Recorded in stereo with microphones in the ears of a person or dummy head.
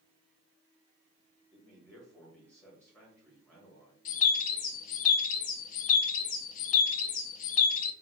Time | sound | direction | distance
1.5 | a man speaking | 10° left (ahead or behind) | 1.9 m
4.0 | a bird | 50° left (ahead or behind) | 0.6 m